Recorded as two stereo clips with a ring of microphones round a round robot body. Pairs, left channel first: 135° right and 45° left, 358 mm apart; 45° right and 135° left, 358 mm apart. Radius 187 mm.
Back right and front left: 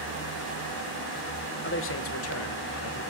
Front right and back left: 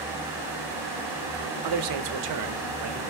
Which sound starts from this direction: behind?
A man speaking, at 1.6 s.